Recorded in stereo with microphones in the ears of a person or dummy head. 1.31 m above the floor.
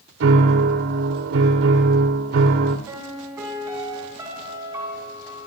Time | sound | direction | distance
0.2 | a piano | 70° right (ahead or behind) | 2.5 m
2.9 | a piano | 15° right (ahead or behind) | 7 m